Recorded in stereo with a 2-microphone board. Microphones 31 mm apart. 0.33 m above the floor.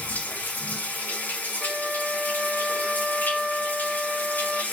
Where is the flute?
10° right (ahead or behind), 0.5 m.